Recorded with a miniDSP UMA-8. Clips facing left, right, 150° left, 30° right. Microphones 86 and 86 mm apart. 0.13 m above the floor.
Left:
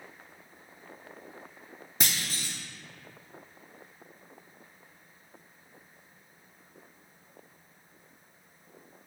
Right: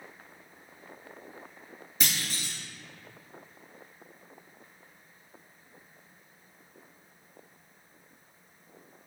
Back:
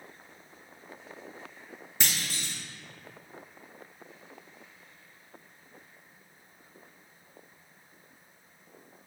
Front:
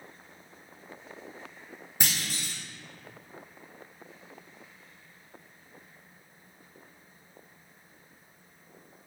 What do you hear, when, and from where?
2.0 s a clunk: 40° left, 1.3 m